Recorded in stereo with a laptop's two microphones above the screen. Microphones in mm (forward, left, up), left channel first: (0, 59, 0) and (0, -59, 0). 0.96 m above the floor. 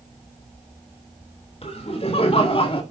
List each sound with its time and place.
1.6 s laughter: 60° left (ahead or behind), 3 m; by 2.8 s 50° left (ahead or behind), 1.8 m